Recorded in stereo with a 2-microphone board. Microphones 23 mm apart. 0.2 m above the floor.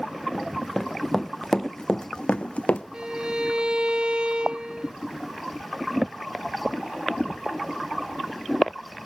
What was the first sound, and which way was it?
Running footsteps, 5° right (ahead or behind).